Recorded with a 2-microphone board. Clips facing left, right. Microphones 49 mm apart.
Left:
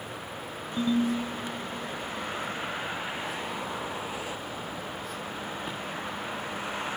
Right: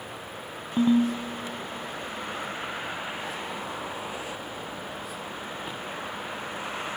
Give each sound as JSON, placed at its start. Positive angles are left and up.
{"t": 0.8, "sound": "a ringtone", "side_deg": -45, "distance_m": 0.5}